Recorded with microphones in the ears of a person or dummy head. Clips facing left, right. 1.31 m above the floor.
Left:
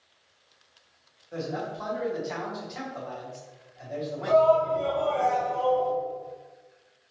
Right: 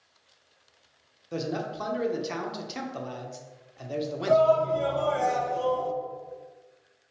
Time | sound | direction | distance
1.3 | a man speaking | 45° right (ahead or behind) | 0.7 m
4.3 | a shout | 20° right (ahead or behind) | 0.6 m